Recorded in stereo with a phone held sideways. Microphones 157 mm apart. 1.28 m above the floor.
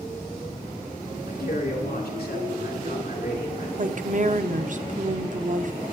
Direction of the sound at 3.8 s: 55° right (ahead or behind).